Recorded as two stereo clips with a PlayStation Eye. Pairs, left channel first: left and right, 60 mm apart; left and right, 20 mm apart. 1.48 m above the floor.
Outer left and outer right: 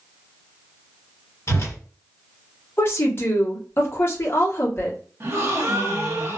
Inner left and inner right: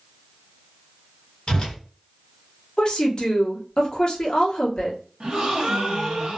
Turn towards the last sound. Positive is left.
turn(degrees=-40)  # may be behind; listen again after turning